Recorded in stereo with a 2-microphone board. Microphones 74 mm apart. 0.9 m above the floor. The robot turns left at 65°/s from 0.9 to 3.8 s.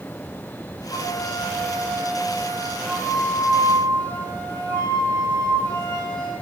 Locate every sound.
0.9 s a flute: 105° left, 3 m; by 6.3 s 80° right, 3 m